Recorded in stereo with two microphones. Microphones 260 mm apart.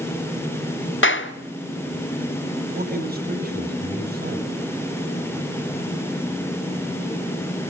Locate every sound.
1.0 s a clap: 50° left (ahead or behind), 1.3 m
2.7 s a man speaking: 35° right (ahead or behind), 7.5 m